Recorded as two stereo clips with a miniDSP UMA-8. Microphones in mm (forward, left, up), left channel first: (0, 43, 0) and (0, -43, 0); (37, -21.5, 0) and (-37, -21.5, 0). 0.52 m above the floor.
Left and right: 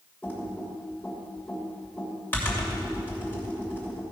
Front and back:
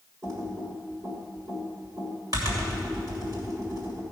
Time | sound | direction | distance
0.2 | typing on a keyboard | 155° left | 3 m